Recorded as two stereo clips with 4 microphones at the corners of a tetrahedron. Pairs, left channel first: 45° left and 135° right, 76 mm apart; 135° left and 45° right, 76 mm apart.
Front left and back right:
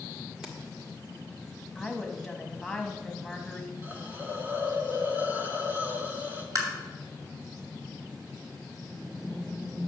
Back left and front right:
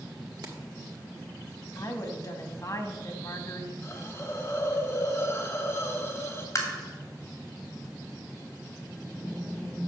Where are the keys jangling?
55° right, 1.6 m.